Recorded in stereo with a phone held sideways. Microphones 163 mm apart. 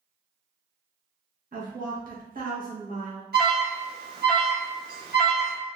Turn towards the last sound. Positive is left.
turn(degrees=-80)